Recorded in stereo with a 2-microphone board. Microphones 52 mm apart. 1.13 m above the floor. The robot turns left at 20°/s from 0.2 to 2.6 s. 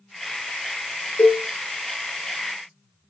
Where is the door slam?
I don't hear a door slam.